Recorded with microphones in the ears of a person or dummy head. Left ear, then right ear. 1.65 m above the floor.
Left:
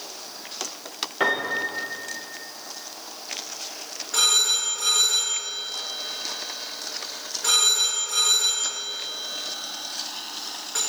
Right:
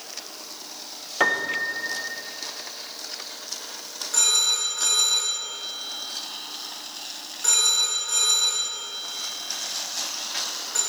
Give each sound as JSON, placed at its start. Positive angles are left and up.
{"t": 1.2, "sound": "a piano", "side_deg": -30, "distance_m": 0.5}
{"t": 4.1, "sound": "a phone ringing", "side_deg": 0, "distance_m": 1.2}